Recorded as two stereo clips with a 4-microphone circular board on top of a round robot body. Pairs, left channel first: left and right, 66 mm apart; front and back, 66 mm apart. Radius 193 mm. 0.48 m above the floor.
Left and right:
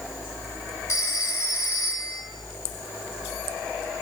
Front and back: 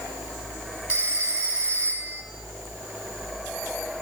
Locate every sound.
0.9 s a phone ringing: 110° left, 6.5 m